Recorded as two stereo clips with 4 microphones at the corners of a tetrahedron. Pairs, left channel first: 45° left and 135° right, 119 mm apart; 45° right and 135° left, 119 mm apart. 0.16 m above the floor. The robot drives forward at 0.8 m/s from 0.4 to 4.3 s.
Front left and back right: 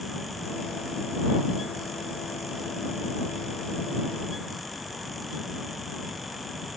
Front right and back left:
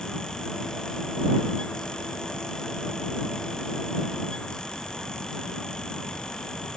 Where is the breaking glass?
I don't hear breaking glass.